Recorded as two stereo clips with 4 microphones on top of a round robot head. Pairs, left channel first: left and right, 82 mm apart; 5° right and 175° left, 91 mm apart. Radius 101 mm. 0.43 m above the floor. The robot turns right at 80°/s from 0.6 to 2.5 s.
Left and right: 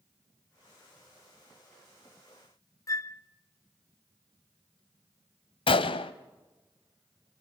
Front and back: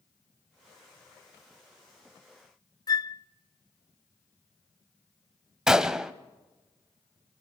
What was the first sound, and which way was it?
A flute, 40° left.